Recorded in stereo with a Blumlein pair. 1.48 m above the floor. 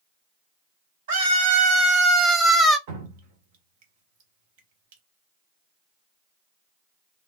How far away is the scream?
About 1.2 m.